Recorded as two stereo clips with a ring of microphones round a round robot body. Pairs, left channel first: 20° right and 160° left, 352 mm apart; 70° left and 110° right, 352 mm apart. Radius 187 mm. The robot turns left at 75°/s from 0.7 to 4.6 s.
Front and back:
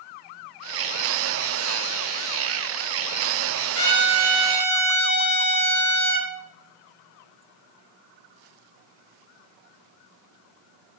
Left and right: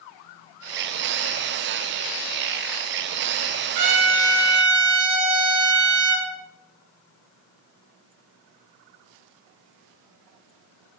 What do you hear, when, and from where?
3.8 s a trumpet: 70° right, 3.5 m; by 6.3 s 135° right, 3.5 m